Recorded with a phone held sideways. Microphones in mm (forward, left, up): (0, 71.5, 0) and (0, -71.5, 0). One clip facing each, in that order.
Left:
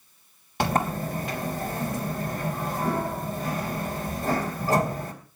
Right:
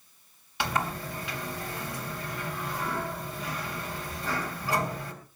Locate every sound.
0.6 s a sliding door: 45° left (ahead or behind), 3.5 m